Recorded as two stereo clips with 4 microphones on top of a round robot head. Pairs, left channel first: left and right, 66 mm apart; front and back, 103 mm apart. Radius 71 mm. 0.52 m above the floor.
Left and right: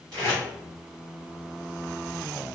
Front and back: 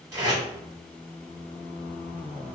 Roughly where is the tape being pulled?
Behind right.